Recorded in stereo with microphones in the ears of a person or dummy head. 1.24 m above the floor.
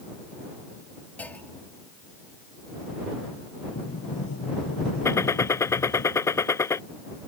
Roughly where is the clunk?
Centre.